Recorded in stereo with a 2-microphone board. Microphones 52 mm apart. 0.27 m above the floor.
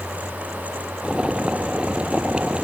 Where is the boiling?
20° right (ahead or behind).